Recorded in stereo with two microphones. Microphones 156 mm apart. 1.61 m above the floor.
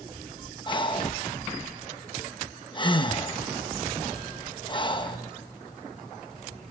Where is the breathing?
30° left (ahead or behind), 0.9 m.